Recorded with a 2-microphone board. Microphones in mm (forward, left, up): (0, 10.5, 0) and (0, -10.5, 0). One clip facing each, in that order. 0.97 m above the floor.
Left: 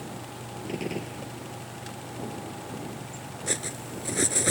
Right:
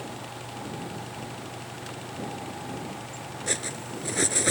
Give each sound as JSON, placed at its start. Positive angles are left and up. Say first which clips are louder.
{"t": 0.7, "sound": "a gunshot", "louder": "left 3 dB", "side_deg": 75}
{"t": 3.5, "sound": "cutlery clinking", "louder": "right 1 dB", "side_deg": -10}